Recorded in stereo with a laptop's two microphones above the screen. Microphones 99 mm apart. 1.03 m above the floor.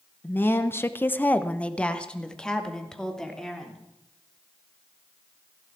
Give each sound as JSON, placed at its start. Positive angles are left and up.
{"t": 0.2, "sound": "a woman speaking", "side_deg": 20, "distance_m": 0.9}